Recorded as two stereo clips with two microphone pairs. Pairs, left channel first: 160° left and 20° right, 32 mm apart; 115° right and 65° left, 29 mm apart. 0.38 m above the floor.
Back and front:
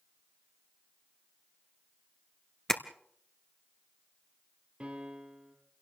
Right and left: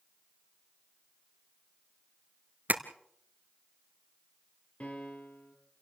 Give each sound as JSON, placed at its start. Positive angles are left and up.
{"t": 2.7, "sound": "tapping", "azimuth_deg": 85, "distance_m": 1.2}
{"t": 4.8, "sound": "a piano", "azimuth_deg": -70, "distance_m": 4.0}